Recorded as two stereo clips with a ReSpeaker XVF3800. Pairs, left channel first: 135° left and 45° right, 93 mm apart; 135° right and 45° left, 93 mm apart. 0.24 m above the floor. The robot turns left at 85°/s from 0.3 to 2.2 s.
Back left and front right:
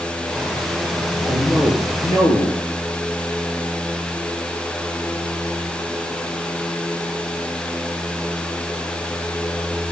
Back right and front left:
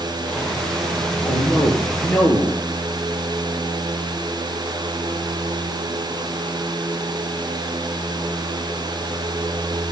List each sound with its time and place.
1.2 s a man speaking: 130° right, 5.5 m; by 2.6 s 145° left, 5.5 m